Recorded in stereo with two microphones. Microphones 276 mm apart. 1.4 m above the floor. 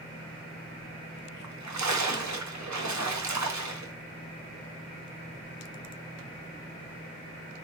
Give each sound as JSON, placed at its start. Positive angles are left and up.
{"t": 1.4, "sound": "a splash", "side_deg": -85, "distance_m": 0.7}